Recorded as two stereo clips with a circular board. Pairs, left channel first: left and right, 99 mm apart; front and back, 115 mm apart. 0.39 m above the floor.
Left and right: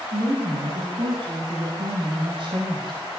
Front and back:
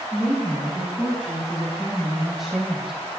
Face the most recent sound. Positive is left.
turn(degrees=-90)